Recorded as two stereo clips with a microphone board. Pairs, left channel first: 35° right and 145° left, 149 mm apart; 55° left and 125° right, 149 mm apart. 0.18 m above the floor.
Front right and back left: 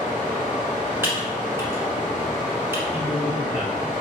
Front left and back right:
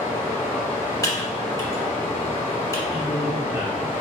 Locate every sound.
0.0 s running water: 80° left, 2.0 m
1.0 s typing on a keyboard: 90° left, 1.1 m
2.9 s a man speaking: 145° right, 1.4 m